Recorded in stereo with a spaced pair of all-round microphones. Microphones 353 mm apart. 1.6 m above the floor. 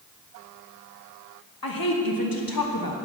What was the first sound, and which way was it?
A woman speaking, 75° left (ahead or behind).